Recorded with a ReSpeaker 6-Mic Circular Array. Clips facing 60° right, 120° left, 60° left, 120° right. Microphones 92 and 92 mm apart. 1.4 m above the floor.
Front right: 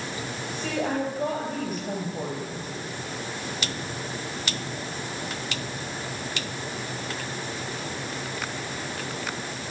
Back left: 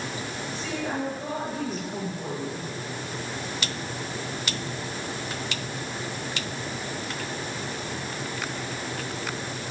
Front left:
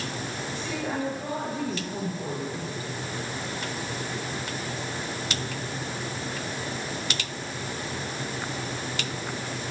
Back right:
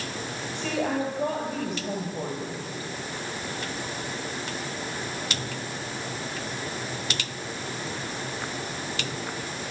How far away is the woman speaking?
About 9.5 m.